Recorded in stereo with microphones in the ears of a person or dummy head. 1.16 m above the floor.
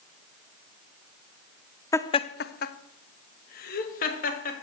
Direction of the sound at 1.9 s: 10° left (ahead or behind).